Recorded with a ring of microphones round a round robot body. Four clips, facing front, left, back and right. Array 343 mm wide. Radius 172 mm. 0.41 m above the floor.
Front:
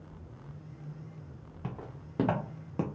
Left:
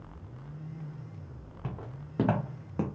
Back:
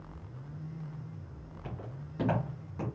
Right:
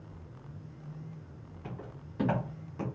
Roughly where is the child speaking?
No child speaking in this recording.